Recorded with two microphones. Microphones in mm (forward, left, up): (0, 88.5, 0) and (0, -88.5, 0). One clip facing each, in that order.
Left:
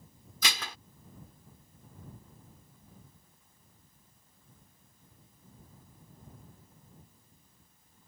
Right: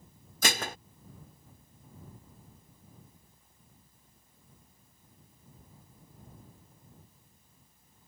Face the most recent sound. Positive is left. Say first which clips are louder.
# right 6 dB
turn(degrees=-50)  # may be behind; listen again after turning